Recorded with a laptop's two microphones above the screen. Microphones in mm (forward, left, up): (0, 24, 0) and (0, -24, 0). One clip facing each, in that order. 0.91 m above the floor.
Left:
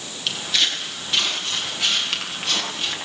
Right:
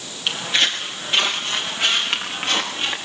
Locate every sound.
0.3 s footsteps: 25° right (ahead or behind), 6.5 m